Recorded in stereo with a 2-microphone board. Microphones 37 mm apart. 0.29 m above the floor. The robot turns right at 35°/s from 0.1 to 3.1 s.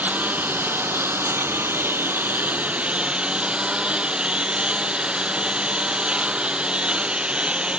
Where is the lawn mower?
135° right; by 7.8 s 30° right.